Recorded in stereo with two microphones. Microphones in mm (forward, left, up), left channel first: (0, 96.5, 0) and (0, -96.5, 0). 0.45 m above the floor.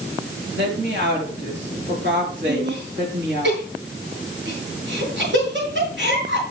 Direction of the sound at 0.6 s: 70° right (ahead or behind).